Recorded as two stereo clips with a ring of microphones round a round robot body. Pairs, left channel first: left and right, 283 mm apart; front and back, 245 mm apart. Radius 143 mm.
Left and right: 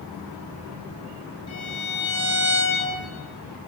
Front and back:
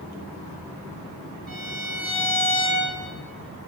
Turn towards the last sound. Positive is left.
turn(degrees=130)